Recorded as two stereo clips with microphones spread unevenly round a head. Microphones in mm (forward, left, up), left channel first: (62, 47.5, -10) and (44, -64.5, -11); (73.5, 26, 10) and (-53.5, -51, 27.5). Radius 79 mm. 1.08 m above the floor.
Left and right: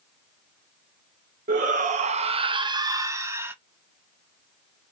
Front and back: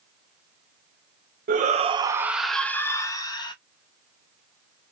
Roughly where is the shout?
Behind right.